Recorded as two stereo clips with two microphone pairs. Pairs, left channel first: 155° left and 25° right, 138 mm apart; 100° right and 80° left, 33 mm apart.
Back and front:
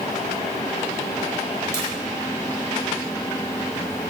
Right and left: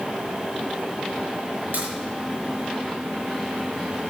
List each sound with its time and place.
1.7 s a crack: 85° left, 6 m